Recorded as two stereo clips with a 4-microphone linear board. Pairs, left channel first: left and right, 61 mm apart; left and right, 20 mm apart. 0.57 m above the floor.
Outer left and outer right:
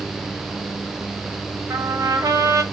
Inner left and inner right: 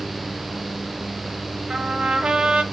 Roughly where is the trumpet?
Right.